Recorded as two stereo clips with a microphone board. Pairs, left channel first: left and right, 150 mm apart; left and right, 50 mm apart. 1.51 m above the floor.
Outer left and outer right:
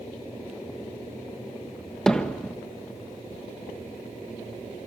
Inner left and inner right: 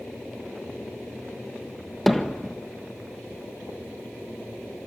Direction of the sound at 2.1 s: 5° left (ahead or behind).